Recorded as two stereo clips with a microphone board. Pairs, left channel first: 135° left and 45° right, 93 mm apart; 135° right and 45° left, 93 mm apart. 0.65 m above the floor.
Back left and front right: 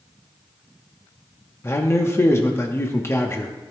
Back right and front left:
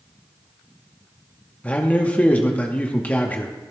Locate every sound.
1.6 s a man speaking: 165° left, 0.8 m